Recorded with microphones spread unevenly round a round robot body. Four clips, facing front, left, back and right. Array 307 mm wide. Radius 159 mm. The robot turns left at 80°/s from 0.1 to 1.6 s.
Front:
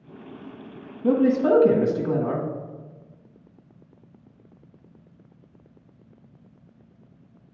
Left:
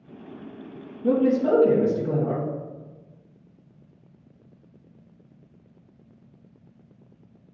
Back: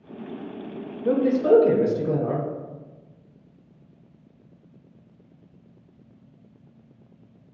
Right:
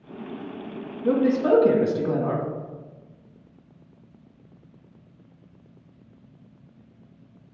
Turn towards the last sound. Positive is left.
turn(degrees=-20)